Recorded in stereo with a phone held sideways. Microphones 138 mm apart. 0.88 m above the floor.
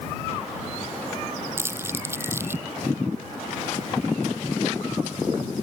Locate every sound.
1.6 s crumpling: 15° right (ahead or behind)